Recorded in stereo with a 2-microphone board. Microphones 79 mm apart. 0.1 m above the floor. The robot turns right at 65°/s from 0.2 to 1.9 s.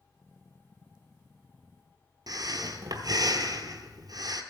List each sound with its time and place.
2.3 s breathing: 50° right (ahead or behind), 0.9 m